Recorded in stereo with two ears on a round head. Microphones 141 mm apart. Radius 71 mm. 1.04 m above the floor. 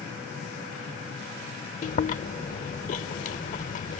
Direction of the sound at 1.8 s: 45° left (ahead or behind).